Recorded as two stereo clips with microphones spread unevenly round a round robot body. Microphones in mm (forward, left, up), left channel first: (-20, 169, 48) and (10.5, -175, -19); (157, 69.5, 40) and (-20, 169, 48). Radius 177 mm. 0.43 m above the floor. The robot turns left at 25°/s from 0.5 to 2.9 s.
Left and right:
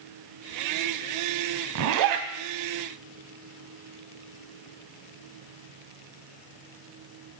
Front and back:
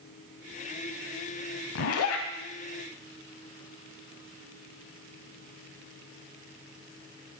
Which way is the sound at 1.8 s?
35° right.